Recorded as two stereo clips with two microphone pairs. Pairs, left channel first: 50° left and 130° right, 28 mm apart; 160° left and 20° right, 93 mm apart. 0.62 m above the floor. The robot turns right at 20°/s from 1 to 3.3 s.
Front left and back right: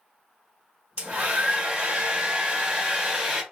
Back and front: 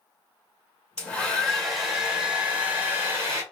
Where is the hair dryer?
120° right, 1.2 m; by 3.4 s 75° right, 1.2 m.